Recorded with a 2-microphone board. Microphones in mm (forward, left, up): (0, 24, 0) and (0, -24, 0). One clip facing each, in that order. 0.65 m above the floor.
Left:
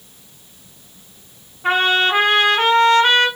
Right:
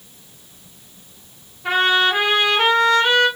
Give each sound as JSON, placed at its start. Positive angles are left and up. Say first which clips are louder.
{"t": 1.6, "sound": "a trumpet", "louder": "left 1 dB", "side_deg": 45, "distance_m": 2.0}